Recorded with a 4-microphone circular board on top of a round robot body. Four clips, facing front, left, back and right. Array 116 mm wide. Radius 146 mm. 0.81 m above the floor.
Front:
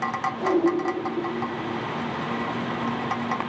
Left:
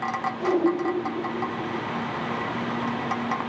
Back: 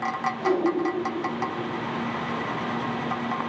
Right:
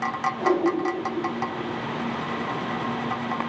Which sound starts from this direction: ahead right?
A whoosh, at 0.4 s.